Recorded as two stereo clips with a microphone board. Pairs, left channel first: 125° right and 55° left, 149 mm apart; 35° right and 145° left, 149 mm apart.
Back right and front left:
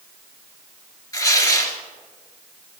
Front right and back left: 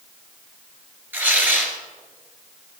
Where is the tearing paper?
155° right, 1.5 m.